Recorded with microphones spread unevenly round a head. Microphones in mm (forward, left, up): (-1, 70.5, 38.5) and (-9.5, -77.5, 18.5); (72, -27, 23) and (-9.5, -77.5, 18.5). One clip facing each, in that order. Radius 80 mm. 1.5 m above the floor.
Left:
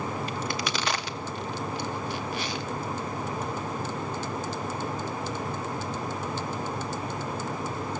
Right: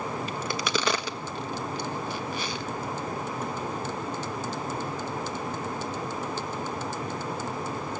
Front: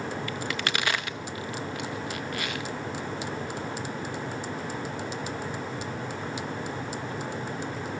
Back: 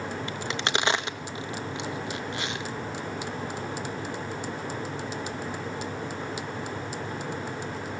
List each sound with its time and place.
0.3 s a crack: 80° right, 1.4 m